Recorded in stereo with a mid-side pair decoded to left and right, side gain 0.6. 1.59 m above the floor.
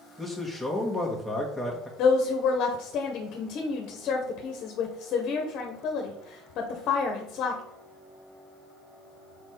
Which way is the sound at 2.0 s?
55° left.